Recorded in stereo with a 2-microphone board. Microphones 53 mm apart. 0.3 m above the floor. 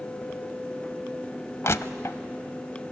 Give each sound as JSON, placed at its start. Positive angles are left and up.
{"t": 1.6, "sound": "crushing", "side_deg": 55, "distance_m": 0.5}